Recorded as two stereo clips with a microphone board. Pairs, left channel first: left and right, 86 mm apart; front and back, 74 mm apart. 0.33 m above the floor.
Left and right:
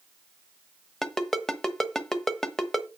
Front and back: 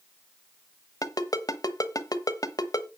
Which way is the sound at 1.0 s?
5° left.